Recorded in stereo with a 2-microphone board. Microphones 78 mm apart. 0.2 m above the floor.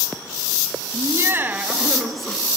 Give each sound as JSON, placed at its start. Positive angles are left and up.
{"t": 0.9, "sound": "laughter", "side_deg": -40, "distance_m": 1.2}